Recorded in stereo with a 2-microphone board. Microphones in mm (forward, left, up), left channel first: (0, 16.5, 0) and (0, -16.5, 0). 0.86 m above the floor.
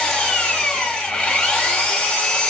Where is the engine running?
20° left (ahead or behind), 1.7 m.